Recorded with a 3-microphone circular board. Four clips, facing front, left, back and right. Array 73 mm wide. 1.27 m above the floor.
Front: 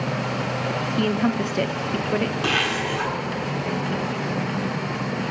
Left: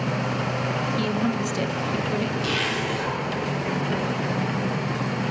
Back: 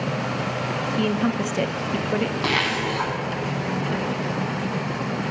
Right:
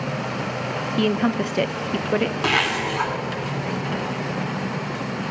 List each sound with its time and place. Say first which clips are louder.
1.0 s a woman speaking: right 7 dB, front 1 dB; 85° right, 0.5 m
2.4 s a zipper: right 4 dB, even; 115° right, 2.5 m